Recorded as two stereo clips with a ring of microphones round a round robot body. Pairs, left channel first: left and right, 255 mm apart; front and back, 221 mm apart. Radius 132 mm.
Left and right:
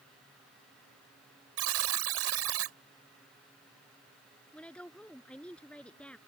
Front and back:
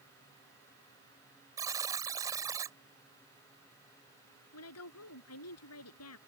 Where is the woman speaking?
5° left.